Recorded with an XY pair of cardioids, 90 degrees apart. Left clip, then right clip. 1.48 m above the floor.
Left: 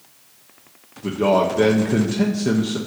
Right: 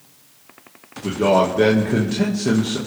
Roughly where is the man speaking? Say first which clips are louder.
Right 1 dB; ahead.